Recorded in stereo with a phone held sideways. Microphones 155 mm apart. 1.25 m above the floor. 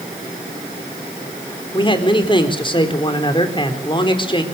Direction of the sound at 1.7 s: 30° left (ahead or behind).